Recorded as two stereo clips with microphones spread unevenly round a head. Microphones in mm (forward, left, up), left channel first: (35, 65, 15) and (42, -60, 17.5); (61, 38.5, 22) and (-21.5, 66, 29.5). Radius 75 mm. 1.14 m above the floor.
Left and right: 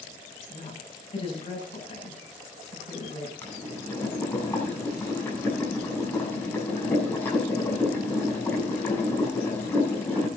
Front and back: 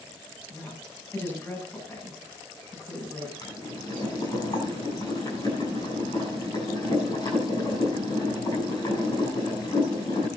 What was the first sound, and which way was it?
A woman speaking, 45° left.